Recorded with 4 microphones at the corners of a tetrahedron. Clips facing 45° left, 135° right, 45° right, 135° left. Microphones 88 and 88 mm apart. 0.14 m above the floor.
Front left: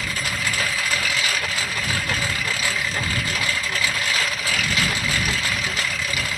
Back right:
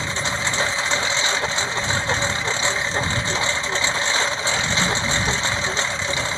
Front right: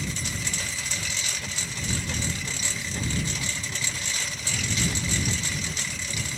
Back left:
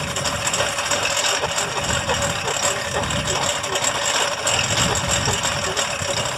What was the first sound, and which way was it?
A lawn mower, 160° left.